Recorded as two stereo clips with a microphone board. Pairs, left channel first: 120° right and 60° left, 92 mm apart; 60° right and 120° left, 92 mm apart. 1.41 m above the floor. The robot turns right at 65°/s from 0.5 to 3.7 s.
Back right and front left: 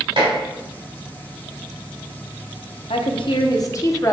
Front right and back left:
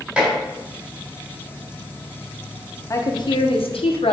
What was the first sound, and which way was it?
Dishes clattering, 40° left.